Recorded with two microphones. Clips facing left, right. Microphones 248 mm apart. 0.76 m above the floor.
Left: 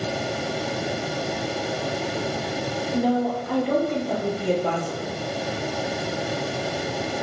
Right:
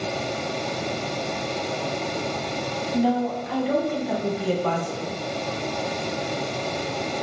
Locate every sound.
2.9 s a woman speaking: 65° left (ahead or behind), 1.7 m; by 5.2 s 5° right (ahead or behind), 1.0 m